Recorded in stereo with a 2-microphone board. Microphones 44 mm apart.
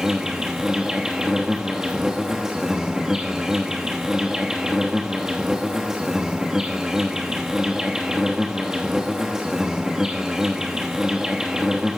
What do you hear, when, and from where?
0.0 s an insect: 15° right (ahead or behind), 1.2 m